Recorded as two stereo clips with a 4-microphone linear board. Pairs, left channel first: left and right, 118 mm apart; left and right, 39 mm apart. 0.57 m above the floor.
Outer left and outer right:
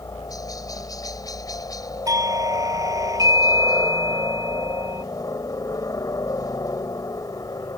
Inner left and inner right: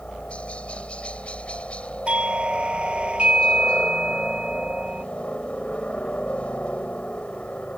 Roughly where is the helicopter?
Left.